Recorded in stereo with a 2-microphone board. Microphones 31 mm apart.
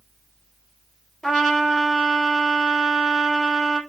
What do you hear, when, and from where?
1.2 s a trumpet: 5° left (ahead or behind), 3 m